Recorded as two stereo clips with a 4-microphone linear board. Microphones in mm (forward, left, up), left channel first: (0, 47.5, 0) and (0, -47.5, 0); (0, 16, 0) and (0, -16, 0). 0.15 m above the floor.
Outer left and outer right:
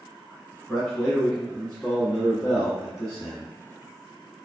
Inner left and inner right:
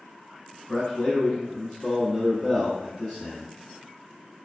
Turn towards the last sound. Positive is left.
turn(degrees=0)  # may be behind; listen again after turning